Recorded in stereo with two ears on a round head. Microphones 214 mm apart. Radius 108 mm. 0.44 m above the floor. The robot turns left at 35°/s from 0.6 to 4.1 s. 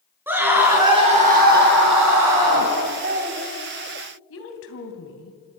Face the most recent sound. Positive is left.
turn(degrees=60)  # may be behind; listen again after turning